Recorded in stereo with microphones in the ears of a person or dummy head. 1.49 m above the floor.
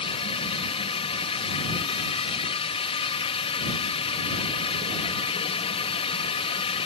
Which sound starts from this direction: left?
A drone, at 0.0 s.